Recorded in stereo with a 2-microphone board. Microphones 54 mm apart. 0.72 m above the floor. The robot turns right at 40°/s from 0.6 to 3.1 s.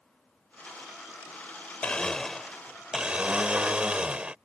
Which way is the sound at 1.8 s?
155° left.